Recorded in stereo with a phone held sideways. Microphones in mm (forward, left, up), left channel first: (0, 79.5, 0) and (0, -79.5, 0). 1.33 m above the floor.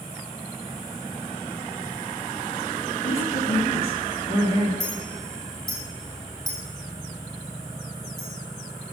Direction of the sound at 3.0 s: 45° left (ahead or behind).